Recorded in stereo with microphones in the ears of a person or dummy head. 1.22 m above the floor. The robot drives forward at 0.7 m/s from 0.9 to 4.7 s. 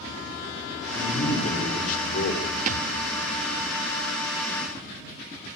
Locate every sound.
0.9 s a man speaking: 40° left (ahead or behind), 4 m; by 2.5 s 55° left (ahead or behind), 3.5 m
2.7 s a thud: 45° right (ahead or behind), 1.6 m; by 2.9 s 50° right (ahead or behind), 1.5 m